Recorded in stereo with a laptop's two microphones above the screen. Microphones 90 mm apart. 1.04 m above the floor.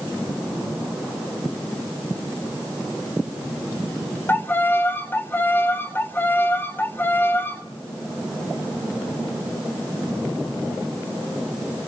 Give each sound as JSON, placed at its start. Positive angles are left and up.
{"t": 4.3, "sound": "a violin", "side_deg": 20, "distance_m": 0.8}